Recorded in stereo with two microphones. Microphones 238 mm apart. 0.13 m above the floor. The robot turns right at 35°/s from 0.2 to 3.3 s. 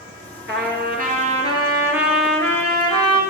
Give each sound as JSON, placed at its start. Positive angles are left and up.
{"t": 0.5, "sound": "a trumpet", "azimuth_deg": -60, "distance_m": 1.6}